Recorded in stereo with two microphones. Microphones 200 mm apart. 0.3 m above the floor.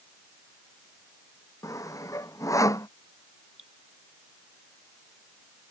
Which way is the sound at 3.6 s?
85° right.